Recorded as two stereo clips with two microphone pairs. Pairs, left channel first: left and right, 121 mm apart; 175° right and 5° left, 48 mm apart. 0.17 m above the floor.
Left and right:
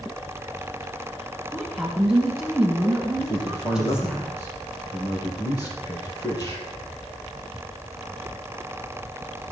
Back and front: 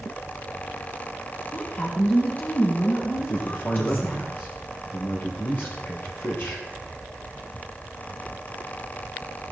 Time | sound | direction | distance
1.5 | a woman speaking | 165° right | 1.6 m
3.2 | a man speaking | 150° left | 3.5 m